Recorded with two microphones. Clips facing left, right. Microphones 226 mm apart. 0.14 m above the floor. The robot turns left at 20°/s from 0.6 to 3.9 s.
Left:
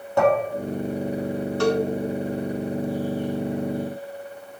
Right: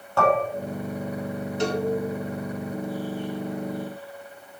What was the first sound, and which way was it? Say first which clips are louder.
Dishes clattering: left 3 dB; 15° left (ahead or behind).